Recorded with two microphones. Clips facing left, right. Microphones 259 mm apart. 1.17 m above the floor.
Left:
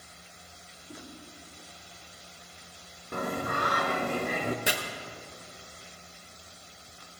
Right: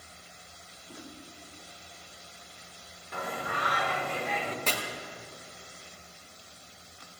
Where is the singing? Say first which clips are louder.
Left 5 dB; 50° left (ahead or behind), 0.7 m.